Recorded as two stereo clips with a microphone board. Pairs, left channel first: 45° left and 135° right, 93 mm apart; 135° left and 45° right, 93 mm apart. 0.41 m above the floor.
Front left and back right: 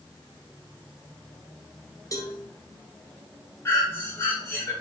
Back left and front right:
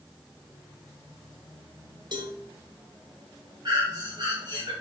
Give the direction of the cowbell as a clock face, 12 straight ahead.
12 o'clock.